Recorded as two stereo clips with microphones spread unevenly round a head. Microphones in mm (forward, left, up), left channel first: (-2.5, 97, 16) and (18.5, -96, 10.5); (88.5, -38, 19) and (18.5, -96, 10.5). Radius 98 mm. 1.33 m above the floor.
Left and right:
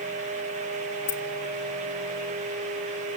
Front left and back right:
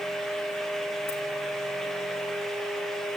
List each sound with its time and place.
1.1 s keys jangling: 85° left, 1.8 m